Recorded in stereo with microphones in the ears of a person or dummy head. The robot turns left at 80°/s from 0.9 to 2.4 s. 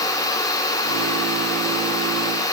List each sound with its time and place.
Only background noise.